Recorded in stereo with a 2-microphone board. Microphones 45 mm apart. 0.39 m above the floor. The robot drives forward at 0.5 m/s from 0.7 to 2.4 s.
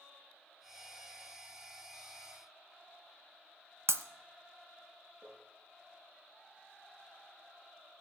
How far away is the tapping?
About 8.5 m.